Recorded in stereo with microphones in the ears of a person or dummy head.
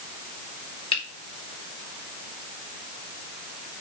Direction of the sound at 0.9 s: 30° left (ahead or behind).